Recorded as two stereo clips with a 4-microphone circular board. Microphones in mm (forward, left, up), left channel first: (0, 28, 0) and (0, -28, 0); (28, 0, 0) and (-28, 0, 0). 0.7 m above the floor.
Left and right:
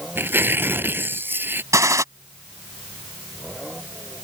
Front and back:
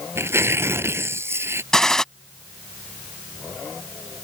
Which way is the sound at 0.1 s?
140° right.